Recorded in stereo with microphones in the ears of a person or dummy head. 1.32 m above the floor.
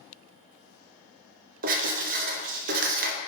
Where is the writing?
35° right (ahead or behind), 0.6 m.